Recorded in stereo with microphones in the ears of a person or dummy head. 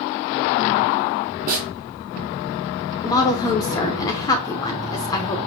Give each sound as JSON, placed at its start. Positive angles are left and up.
{"t": 1.5, "sound": "a snare drum", "side_deg": -40, "distance_m": 1.1}
{"t": 3.0, "sound": "a woman speaking", "side_deg": 20, "distance_m": 0.6}